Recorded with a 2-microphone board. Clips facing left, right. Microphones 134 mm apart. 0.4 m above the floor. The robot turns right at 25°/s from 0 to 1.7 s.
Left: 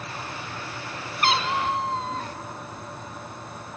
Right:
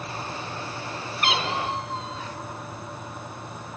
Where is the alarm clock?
I don't hear an alarm clock.